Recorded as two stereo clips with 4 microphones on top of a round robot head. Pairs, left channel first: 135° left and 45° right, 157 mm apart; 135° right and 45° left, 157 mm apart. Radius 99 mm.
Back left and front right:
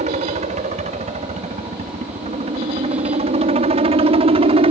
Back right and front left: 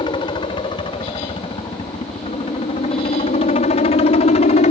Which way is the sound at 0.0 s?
80° right.